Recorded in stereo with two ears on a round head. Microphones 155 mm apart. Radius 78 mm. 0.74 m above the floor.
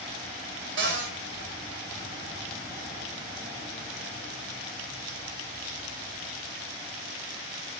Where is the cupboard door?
70° right (ahead or behind), 3 m.